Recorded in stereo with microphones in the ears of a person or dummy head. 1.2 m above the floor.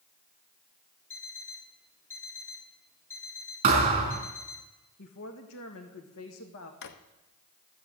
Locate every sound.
1.1 s an alarm clock: 10° left (ahead or behind), 1.4 m
3.6 s a thud: 30° right (ahead or behind), 4 m
5.0 s a woman speaking: 70° left (ahead or behind), 1.6 m
6.8 s a drawer: 55° left (ahead or behind), 0.9 m